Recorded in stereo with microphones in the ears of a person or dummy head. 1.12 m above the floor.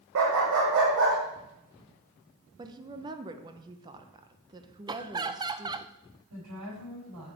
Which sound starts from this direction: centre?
Laughter, at 4.9 s.